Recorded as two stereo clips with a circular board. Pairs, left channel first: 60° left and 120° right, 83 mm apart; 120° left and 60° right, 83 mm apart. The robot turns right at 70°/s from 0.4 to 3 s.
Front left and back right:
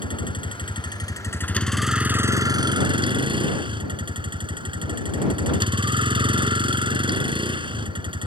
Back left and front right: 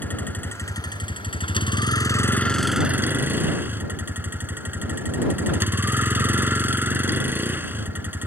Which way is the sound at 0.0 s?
50° left.